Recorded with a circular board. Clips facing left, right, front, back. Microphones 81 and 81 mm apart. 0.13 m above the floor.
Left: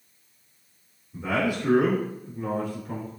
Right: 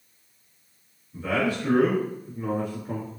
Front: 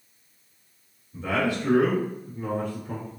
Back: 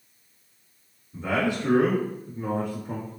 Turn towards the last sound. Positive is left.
turn(degrees=-125)